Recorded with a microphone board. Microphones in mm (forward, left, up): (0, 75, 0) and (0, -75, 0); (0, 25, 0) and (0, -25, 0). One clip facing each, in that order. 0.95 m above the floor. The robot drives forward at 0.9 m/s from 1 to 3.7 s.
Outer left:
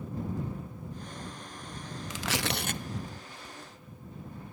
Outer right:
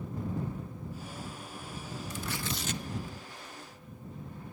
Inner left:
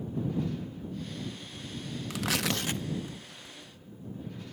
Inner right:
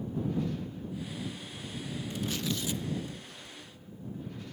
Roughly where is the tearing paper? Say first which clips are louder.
Outer left 6 dB, inner left 4 dB; left.